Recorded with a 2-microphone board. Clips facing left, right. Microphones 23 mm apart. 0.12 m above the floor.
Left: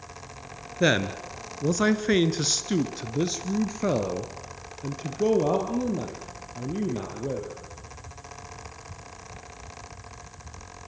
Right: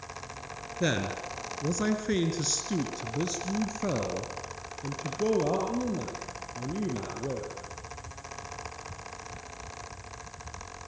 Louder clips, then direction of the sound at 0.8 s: Left 6 dB; 30° left (ahead or behind).